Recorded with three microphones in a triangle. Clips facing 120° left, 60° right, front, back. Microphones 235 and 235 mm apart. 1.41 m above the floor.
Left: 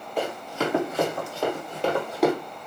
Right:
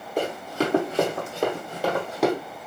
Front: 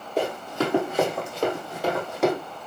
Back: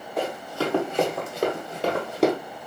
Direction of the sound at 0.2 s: 45° right.